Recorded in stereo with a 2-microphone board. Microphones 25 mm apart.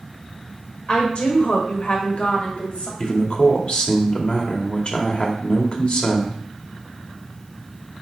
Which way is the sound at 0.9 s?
45° left (ahead or behind).